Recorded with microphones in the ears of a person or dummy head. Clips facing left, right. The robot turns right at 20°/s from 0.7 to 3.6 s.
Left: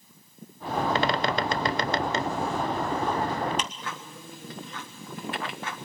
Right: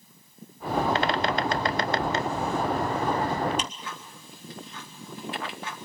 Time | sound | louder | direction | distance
0.9 | a bird | even | 70° left (ahead or behind) | 0.5 m
3.6 | ticking | left 1 dB | 35° left (ahead or behind) | 1.3 m